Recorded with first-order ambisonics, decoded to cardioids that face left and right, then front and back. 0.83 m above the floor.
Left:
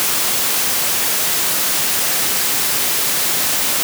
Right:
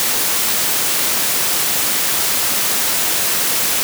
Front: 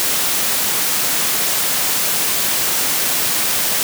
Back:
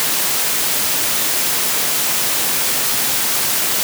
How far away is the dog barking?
No dog barking in this recording.